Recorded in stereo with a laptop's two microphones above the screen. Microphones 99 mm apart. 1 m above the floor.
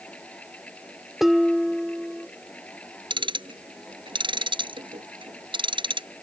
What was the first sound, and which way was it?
A fan, 15° left (ahead or behind).